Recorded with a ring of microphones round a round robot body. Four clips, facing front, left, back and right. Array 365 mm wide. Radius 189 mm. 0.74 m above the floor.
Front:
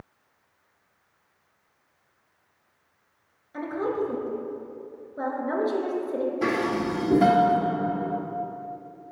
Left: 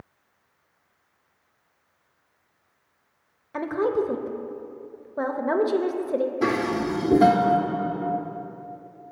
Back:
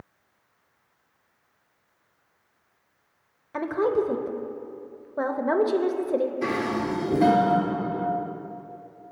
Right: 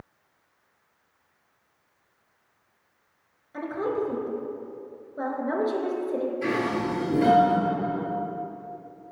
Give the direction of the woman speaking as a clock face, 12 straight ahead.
7 o'clock.